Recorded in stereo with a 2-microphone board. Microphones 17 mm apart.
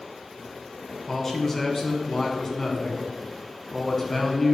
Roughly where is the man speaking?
Left.